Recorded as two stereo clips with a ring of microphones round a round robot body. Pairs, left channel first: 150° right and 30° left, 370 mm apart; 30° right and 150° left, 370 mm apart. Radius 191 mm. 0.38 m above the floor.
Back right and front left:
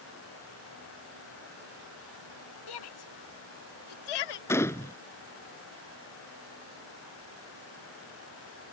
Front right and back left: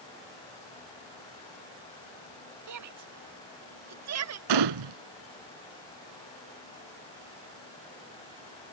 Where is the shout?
170° right; by 4.4 s 160° right.